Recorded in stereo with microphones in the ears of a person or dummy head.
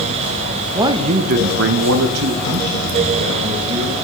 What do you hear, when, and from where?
0.8 s a man speaking: 15° right (ahead or behind), 0.8 m; by 3.9 s 65° right (ahead or behind), 2.5 m